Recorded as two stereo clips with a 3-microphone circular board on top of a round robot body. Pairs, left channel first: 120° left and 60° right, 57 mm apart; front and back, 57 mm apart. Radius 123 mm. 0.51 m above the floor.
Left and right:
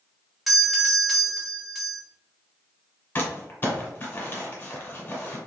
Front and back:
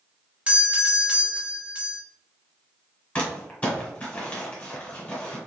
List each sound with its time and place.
0.5 s a doorbell: 145° right, 1.1 m
3.1 s crumpling: 70° left, 1.6 m